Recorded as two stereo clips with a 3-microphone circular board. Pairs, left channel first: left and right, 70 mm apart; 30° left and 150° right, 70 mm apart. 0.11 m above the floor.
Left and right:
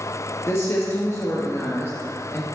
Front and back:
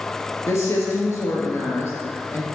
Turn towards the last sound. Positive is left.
turn(degrees=55)